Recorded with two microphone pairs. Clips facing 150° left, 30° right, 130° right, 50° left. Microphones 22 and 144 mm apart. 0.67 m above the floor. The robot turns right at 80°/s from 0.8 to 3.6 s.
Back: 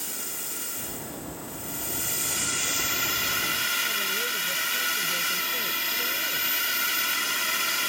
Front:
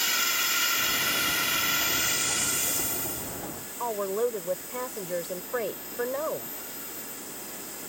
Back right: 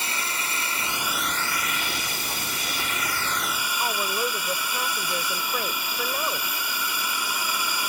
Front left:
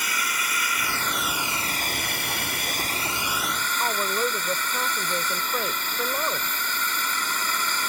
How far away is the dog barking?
I don't hear a dog barking.